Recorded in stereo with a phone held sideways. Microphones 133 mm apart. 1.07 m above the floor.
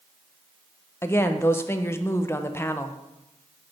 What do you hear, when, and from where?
1.0 s a woman speaking: 20° left (ahead or behind), 0.6 m